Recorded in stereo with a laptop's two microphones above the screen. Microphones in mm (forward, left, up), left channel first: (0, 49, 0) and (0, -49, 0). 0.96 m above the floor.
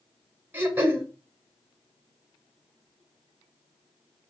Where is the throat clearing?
20° right (ahead or behind), 0.8 m.